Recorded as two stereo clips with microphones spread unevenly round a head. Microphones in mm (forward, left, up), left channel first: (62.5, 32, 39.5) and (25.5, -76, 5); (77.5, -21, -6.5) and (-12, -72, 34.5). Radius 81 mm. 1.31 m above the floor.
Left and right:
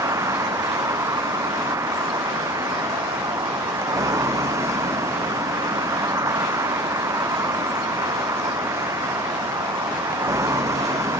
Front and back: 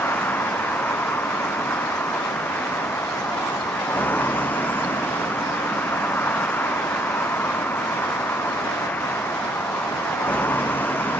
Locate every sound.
0.0 s a vehicle: 45° right